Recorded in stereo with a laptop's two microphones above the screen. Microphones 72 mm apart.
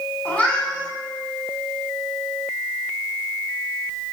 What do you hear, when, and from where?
0.2 s a cat meowing: 20° left (ahead or behind), 1.6 m